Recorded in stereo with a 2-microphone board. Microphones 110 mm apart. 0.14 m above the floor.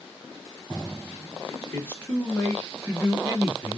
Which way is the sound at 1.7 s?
20° left (ahead or behind).